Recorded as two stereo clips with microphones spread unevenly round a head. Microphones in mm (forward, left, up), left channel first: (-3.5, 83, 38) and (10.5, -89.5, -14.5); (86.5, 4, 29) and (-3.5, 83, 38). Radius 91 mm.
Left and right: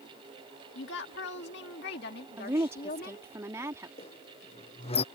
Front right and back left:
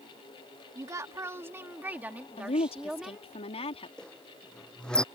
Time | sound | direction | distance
0.8 | a woman speaking | 75° left | ?
2.4 | a woman speaking | 5° right | ?
4.0 | a squeak | 40° left | ?